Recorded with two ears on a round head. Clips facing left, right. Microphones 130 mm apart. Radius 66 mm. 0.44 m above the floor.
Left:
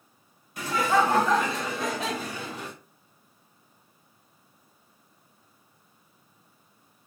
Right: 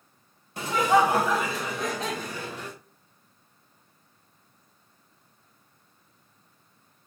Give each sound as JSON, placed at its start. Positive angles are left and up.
{"t": 0.6, "sound": "laughter", "side_deg": -25, "distance_m": 1.0}